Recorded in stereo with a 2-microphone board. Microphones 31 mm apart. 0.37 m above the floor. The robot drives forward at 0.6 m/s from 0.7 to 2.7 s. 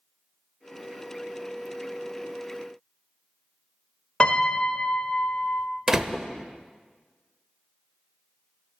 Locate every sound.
4.2 s a piano: 40° left (ahead or behind), 0.9 m
5.9 s a door slam: 15° right (ahead or behind), 0.7 m